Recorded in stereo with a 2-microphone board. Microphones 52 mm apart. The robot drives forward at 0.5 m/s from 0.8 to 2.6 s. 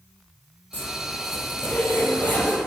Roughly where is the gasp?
I don't hear a gasp.